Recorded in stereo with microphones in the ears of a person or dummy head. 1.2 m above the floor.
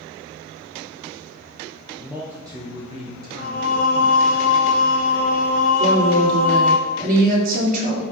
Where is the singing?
50° left (ahead or behind), 1.1 m.